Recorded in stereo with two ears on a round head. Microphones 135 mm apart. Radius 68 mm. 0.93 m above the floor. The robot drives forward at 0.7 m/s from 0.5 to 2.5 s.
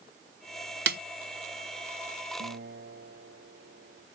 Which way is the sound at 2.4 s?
75° right (ahead or behind).